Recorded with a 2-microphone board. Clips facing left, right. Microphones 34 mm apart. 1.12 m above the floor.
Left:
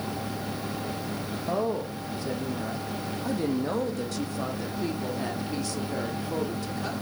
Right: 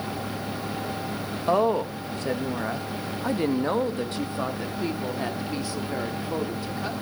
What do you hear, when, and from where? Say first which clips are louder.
1.5 s a woman speaking: right 7 dB; 70° right (ahead or behind), 1.7 m; by 6.9 s 15° right (ahead or behind), 4 m